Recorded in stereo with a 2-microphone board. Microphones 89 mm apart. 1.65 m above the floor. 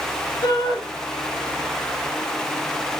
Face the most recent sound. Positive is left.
turn(degrees=60)  # may be behind; listen again after turning